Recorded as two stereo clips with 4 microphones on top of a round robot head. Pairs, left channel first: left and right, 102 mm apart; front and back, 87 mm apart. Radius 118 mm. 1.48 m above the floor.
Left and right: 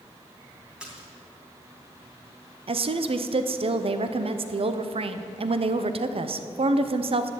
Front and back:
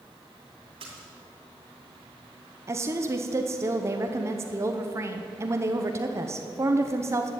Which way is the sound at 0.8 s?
170° right.